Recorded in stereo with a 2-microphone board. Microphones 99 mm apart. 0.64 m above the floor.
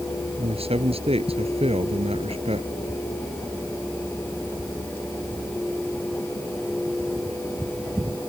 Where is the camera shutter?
I don't hear a camera shutter.